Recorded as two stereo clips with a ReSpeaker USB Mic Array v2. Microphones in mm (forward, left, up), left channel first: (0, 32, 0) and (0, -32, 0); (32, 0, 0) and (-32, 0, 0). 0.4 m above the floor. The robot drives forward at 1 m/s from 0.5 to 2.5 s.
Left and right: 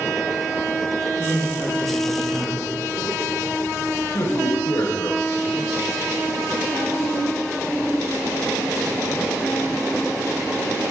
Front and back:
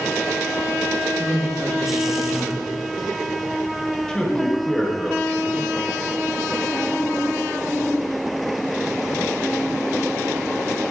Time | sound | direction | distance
1.2 | a woman speaking | 125° left | 6 m
4.1 | a man speaking | 85° left | 2 m